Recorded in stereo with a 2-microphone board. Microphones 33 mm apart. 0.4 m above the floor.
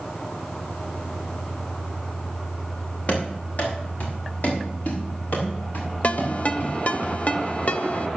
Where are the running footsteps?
45° left (ahead or behind), 5 m; by 7.0 s 80° left, 6.5 m.